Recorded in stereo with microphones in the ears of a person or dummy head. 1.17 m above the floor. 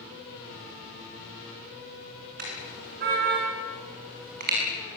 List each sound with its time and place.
2.4 s a car horn: 50° right (ahead or behind), 6.5 m